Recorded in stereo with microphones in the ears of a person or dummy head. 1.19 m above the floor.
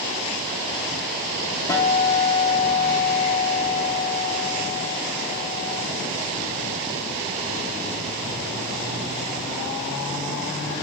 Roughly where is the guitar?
Left.